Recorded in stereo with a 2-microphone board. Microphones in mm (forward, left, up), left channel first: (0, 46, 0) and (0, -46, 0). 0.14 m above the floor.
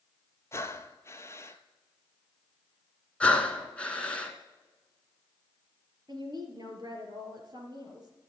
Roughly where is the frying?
I don't hear frying.